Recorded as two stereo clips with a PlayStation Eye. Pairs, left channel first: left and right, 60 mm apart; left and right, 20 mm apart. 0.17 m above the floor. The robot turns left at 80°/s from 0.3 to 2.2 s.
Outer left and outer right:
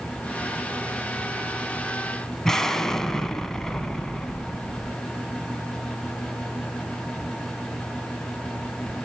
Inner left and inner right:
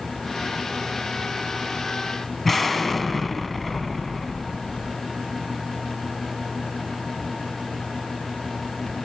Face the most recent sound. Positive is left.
turn(degrees=10)  # may be behind; listen again after turning